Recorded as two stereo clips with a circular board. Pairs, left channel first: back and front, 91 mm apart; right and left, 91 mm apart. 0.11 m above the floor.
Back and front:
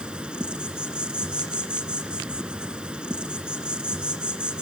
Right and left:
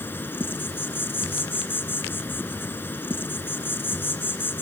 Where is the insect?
65° right, 1.3 m.